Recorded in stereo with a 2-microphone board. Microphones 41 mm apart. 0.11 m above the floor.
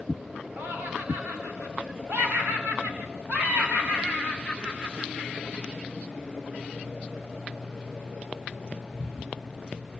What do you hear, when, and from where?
0.6 s laughter: 55° right (ahead or behind), 10 m; by 5.7 s 20° right (ahead or behind), 8.5 m